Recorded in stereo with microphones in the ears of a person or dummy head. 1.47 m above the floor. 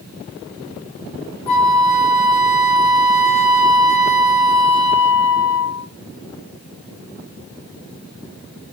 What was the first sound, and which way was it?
A flute, 40° left (ahead or behind).